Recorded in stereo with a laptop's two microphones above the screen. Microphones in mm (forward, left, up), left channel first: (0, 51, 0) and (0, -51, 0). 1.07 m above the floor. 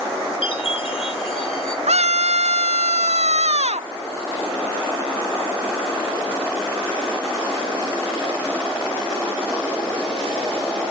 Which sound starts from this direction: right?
A scream, at 1.9 s.